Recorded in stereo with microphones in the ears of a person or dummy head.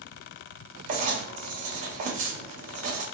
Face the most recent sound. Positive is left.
turn(degrees=-45)  # may be behind; listen again after turning